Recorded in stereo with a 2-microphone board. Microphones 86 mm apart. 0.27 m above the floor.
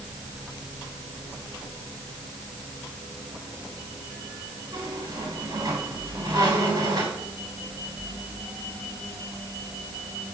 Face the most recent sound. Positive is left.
turn(degrees=-50)  # may be behind; listen again after turning